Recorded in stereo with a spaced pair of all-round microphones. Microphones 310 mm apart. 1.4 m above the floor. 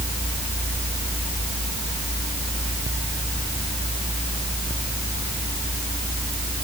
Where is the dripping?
No dripping in this recording.